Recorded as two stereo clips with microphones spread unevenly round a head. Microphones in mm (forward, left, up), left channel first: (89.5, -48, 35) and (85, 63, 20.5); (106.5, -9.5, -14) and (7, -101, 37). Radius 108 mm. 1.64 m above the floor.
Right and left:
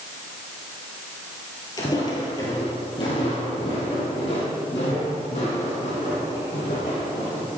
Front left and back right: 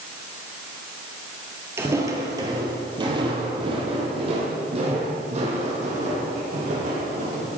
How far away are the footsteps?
About 2 m.